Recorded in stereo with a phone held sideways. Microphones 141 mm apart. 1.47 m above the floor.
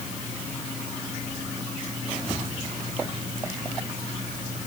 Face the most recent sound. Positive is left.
No sound to turn to.